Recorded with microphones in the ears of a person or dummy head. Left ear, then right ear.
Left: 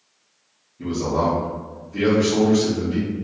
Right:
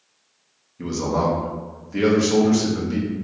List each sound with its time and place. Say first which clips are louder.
0.8 s a man speaking: left 1 dB; 65° right (ahead or behind), 0.9 m